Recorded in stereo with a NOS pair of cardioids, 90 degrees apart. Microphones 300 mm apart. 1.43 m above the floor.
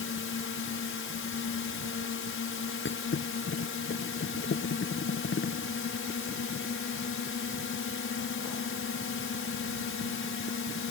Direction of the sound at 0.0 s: 45° left.